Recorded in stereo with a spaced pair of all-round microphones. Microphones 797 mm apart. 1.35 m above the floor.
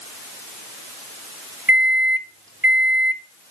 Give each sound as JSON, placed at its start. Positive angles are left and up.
{"t": 1.7, "sound": "a microwave", "side_deg": -15, "distance_m": 0.7}